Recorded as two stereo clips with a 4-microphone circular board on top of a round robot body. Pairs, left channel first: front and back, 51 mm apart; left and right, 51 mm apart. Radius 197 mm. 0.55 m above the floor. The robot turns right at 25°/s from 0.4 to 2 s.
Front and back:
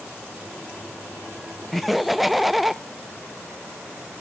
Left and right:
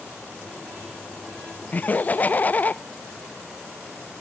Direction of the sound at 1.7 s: 85° left.